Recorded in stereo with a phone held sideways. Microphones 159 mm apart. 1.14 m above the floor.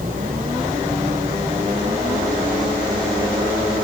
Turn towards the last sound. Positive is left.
turn(degrees=-55)  # may be behind; listen again after turning